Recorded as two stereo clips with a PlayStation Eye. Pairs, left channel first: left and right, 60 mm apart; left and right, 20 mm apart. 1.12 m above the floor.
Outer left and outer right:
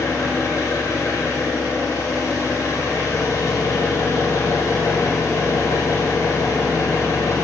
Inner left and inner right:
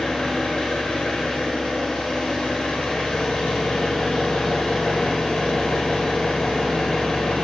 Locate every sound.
0.0 s an engine running: 75° left (ahead or behind), 3 m